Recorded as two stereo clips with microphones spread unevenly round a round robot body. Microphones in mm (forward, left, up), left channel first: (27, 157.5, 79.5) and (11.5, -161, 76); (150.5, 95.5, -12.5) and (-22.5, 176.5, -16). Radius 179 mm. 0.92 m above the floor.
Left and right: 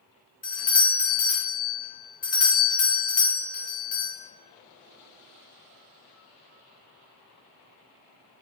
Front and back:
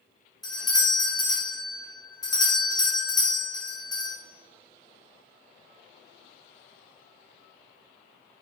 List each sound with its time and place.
0.4 s a doorbell: 40° left, 1.4 m